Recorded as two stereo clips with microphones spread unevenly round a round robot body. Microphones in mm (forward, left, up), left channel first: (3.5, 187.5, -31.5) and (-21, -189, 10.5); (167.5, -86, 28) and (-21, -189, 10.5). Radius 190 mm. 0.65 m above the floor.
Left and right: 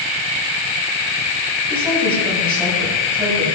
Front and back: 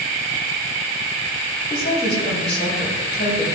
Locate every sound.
1.7 s a woman speaking: 5° right, 4 m